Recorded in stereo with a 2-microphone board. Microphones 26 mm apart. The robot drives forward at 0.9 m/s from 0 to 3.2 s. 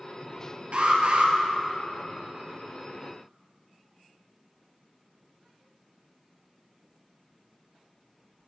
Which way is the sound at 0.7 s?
50° right (ahead or behind).